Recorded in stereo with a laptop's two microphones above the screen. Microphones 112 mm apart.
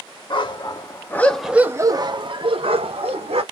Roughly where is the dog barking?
Left.